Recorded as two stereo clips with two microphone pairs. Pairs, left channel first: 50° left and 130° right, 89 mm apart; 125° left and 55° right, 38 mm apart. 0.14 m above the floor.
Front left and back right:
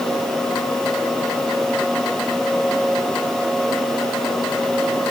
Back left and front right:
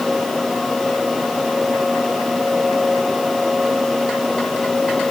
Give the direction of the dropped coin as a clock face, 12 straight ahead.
No dropped coin in this recording.